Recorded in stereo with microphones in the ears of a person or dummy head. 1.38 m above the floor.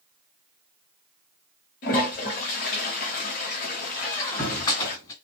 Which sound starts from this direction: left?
A toilet flushing, at 1.8 s.